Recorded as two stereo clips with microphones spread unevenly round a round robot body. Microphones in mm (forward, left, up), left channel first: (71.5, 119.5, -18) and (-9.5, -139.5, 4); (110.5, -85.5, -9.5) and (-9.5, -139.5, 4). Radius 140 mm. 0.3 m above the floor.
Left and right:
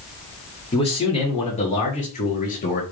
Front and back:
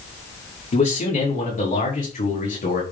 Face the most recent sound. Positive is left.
turn(degrees=15)